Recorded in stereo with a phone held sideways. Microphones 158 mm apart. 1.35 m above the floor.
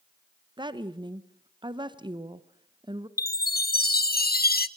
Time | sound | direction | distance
0.6 | a woman speaking | 30° right (ahead or behind) | 0.9 m
3.2 | a chime | 70° left (ahead or behind) | 0.7 m